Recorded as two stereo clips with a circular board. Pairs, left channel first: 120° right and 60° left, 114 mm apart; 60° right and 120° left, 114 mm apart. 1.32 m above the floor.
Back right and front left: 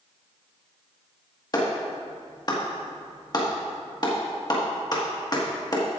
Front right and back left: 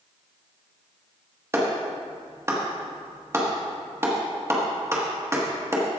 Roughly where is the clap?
Behind.